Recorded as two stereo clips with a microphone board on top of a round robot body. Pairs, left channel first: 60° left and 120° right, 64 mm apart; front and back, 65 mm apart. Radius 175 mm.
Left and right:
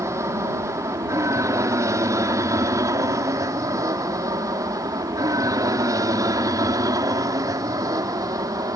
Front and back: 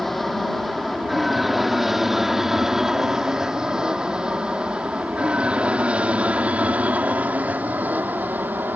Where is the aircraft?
85° right; by 8.8 s 125° right.